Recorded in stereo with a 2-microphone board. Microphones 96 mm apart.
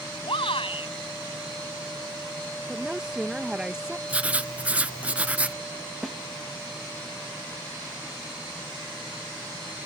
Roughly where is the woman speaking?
Centre.